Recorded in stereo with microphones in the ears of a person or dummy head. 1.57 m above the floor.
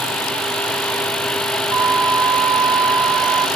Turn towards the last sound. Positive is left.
turn(degrees=-20)  # may be behind; listen again after turning